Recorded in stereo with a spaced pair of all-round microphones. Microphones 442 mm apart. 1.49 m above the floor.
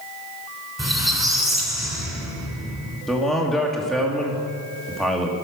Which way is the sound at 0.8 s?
Centre (ahead or behind).